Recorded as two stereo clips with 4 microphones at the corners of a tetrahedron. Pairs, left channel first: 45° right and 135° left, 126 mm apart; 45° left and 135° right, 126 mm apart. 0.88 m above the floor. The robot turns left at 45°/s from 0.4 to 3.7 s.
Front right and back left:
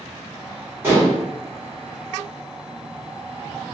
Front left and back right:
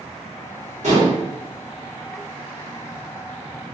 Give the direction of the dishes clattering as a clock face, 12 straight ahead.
5 o'clock.